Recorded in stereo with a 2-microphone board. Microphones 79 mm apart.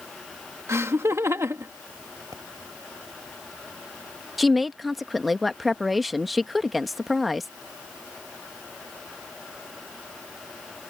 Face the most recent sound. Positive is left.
turn(degrees=0)  # may be behind; listen again after turning